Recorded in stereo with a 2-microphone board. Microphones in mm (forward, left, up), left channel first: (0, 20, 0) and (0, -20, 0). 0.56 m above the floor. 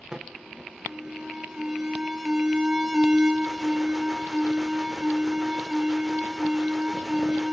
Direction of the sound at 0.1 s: 15° right (ahead or behind).